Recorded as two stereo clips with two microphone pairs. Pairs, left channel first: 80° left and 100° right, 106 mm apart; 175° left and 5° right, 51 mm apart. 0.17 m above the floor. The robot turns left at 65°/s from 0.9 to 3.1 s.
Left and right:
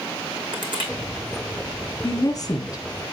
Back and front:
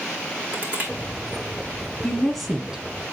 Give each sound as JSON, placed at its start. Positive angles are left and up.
{"t": 0.5, "sound": "crushing", "azimuth_deg": -60, "distance_m": 2.5}
{"t": 2.0, "sound": "a woman speaking", "azimuth_deg": 110, "distance_m": 1.3}